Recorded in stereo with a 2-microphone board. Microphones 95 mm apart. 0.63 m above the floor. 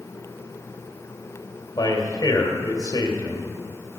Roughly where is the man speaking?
Left.